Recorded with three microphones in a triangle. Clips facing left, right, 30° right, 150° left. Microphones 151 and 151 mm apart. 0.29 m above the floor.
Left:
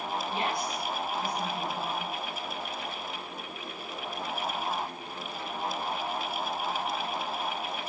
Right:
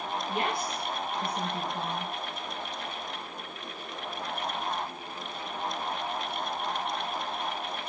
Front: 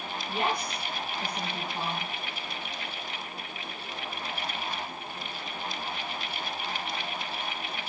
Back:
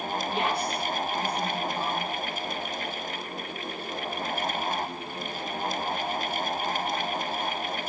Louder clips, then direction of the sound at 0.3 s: Right 2 dB, even; 105° right.